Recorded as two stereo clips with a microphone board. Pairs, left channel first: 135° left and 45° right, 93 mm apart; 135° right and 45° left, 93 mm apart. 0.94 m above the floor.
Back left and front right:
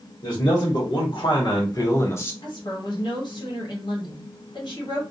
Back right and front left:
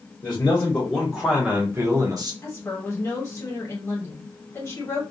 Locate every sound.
0.2 s a man speaking: 160° left, 1.0 m; by 2.3 s 75° left, 0.8 m
2.4 s a woman speaking: 165° left, 1.3 m